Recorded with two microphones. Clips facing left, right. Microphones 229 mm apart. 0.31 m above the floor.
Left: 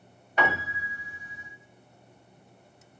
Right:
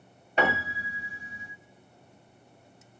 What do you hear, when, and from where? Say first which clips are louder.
0.4 s a piano: right 2 dB; 30° right (ahead or behind), 2.5 m